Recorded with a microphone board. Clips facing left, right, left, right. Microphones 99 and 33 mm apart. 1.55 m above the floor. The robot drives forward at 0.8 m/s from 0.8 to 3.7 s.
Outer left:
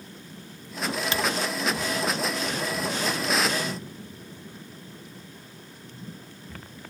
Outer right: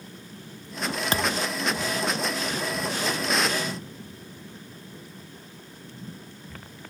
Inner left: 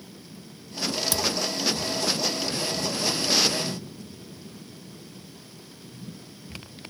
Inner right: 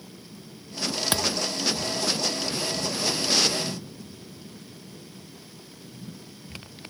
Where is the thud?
40° right (ahead or behind); by 1.5 s 45° right (ahead or behind).